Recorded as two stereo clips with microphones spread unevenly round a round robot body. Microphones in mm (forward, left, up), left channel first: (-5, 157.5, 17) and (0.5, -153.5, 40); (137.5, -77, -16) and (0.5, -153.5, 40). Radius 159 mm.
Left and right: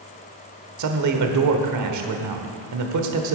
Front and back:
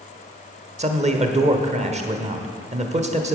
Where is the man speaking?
95° right, 1.2 m.